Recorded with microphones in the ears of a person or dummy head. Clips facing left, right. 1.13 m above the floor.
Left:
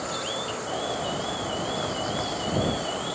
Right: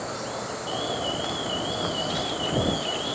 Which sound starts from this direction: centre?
An alarm, at 0.7 s.